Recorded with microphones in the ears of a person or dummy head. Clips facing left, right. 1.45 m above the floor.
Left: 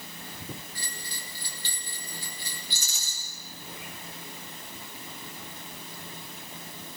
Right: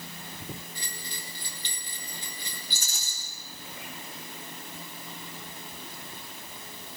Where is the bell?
20° right (ahead or behind), 1.6 m.